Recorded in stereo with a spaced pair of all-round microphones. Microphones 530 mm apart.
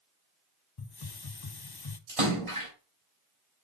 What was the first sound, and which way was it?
A hiss, 45° left (ahead or behind).